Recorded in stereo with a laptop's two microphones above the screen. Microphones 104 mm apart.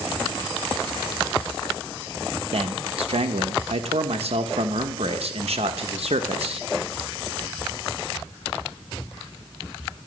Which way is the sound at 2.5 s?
75° right (ahead or behind).